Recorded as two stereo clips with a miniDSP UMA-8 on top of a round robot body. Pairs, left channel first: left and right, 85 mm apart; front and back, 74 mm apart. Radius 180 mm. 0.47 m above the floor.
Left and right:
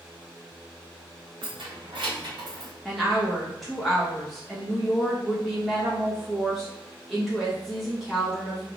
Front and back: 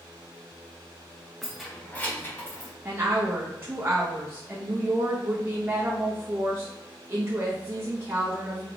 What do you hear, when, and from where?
1.4 s keys jangling: 90° right, 1.1 m; by 2.7 s 55° right, 1.9 m
2.9 s a woman speaking: 175° left, 1.2 m